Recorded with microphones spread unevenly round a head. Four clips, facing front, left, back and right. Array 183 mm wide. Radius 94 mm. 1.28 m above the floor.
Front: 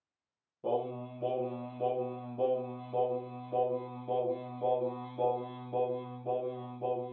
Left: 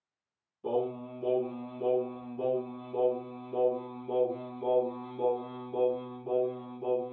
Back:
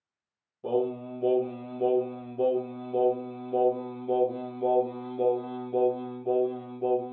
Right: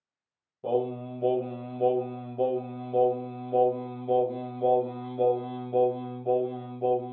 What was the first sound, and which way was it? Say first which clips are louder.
Singing: right 3 dB, back 5 dB; 85° right.